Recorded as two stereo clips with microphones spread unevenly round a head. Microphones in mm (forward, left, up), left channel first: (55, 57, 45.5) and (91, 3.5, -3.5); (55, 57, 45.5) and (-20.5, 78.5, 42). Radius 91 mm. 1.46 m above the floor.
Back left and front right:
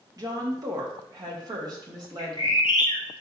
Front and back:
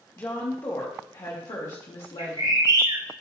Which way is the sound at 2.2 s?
135° left.